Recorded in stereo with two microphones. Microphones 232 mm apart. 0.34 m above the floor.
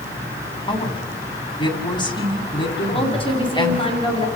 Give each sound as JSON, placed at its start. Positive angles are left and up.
{"t": 0.7, "sound": "a woman speaking", "side_deg": 20, "distance_m": 3.0}
{"t": 2.9, "sound": "a woman speaking", "side_deg": 25, "distance_m": 3.0}